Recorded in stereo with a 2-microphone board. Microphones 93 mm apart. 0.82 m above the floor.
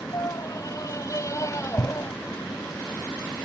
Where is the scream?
45° left (ahead or behind); by 2.1 s 35° left (ahead or behind).